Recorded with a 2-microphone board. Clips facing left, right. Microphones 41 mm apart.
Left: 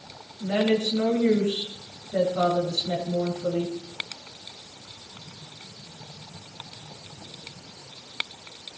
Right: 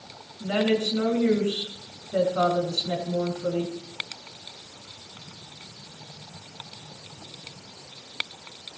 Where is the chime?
No chime in this recording.